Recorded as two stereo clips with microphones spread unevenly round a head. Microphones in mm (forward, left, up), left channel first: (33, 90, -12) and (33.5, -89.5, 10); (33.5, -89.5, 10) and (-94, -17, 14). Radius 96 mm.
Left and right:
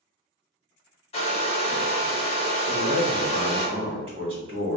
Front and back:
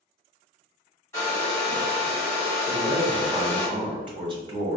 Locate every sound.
1.1 s a hair dryer: 40° left, 0.8 m
2.7 s a man speaking: 155° right, 1.3 m